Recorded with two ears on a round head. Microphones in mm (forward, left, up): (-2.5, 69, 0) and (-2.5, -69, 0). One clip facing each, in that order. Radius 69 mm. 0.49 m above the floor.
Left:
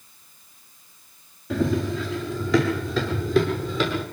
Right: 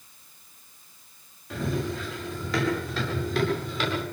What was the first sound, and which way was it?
Running footsteps, 65° left (ahead or behind).